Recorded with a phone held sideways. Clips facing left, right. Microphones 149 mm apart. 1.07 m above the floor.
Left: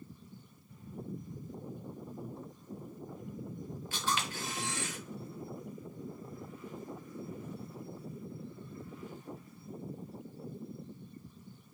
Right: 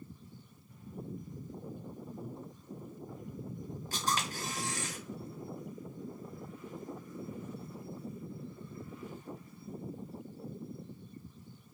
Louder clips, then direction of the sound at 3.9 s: Right 1 dB; 40° right (ahead or behind).